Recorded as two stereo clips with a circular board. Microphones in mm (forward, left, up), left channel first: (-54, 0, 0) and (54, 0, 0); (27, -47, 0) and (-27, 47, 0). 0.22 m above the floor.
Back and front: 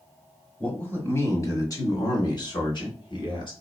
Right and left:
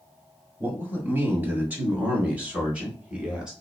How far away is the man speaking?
About 1.5 m.